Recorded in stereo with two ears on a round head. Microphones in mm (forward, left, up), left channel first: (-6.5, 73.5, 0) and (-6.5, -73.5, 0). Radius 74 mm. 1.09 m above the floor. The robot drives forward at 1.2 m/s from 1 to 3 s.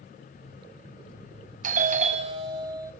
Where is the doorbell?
45° right (ahead or behind), 0.8 m; by 2.9 s 20° right (ahead or behind), 1.6 m.